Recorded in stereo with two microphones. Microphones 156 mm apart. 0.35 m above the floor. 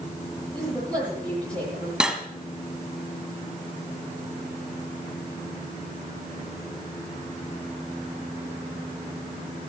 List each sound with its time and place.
0.5 s a woman speaking: 5° left (ahead or behind), 10 m
2.0 s cutlery clinking: 5° right (ahead or behind), 1.3 m